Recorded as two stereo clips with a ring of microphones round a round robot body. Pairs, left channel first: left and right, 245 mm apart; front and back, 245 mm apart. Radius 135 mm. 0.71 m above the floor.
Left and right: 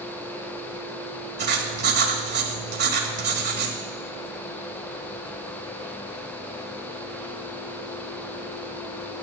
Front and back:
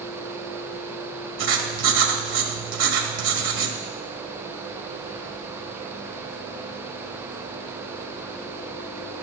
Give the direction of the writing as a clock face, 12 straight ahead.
5 o'clock.